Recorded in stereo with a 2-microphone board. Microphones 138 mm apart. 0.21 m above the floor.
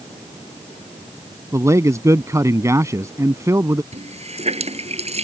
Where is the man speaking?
25° right (ahead or behind).